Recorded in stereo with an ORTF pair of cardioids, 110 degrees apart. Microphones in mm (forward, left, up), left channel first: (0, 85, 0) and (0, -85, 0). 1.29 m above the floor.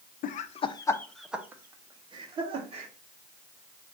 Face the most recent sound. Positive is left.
turn(degrees=-35)